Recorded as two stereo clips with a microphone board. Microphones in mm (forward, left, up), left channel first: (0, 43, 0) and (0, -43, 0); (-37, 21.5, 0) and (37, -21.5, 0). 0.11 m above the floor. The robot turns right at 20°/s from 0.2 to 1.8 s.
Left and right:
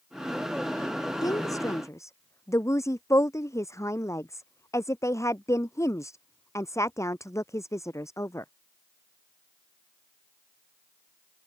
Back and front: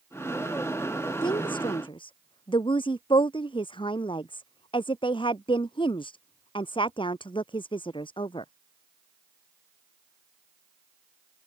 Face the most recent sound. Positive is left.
turn(degrees=145)